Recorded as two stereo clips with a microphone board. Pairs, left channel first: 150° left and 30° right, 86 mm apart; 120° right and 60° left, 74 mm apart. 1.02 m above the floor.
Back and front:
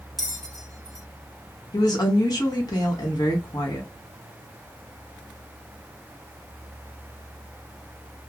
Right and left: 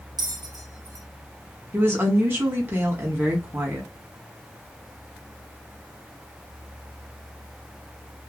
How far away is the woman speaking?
About 1.4 m.